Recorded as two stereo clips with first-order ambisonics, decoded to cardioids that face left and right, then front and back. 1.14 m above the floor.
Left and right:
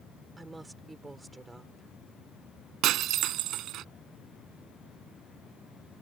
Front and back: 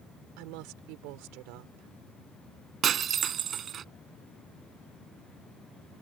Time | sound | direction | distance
0.4 | a woman speaking | 170° right | ?
2.8 | breaking glass | 125° right | ?